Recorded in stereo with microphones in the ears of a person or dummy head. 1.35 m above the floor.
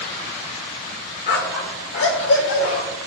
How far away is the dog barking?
About 1.3 m.